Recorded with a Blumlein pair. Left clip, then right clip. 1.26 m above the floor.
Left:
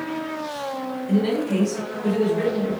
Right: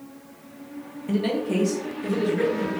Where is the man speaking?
25° right, 1.1 m; by 2.7 s 50° right, 2.5 m.